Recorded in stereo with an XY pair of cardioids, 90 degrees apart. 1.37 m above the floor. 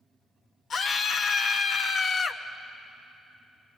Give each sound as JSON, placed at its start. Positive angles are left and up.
{"t": 0.7, "sound": "a scream", "azimuth_deg": 55, "distance_m": 0.5}